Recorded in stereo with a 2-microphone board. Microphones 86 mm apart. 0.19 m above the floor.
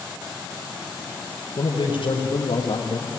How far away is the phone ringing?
I don't hear a phone ringing.